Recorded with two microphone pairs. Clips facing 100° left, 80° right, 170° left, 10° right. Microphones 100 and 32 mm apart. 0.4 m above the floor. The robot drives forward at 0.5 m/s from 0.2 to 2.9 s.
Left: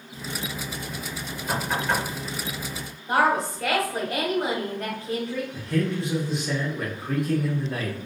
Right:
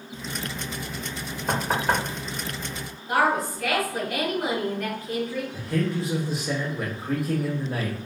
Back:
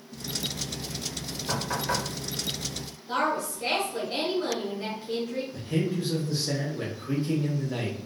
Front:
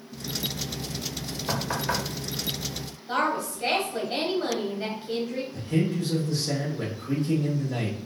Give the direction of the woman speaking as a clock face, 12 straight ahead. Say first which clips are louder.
Left 1 dB, front 1 dB; 10 o'clock.